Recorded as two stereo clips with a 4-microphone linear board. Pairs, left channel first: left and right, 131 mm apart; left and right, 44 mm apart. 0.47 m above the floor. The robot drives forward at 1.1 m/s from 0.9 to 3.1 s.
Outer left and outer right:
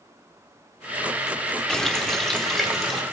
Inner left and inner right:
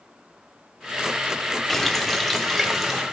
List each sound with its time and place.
1.7 s a running tap: 5° left (ahead or behind), 0.7 m; by 3.0 s centre (ahead or behind), 1.9 m